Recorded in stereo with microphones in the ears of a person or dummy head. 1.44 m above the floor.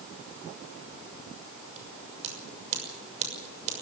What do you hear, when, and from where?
1.8 s scissors: 40° right (ahead or behind), 6 m